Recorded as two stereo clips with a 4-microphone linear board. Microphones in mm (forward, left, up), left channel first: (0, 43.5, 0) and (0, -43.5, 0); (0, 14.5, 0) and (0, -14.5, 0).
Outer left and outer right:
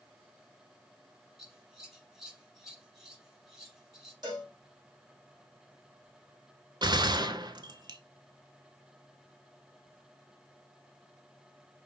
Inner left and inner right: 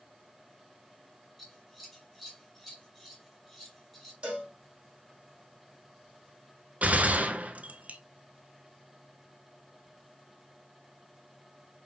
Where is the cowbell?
50° right (ahead or behind), 2.5 m.